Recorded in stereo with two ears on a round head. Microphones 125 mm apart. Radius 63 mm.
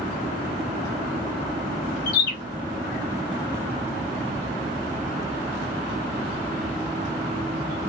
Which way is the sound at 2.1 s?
75° left (ahead or behind).